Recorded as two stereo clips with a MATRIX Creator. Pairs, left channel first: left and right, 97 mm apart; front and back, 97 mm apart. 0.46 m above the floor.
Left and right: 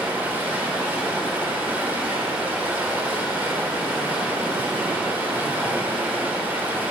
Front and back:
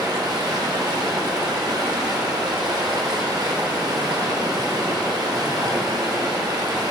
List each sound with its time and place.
0.0 s running water: 155° right, 1.1 m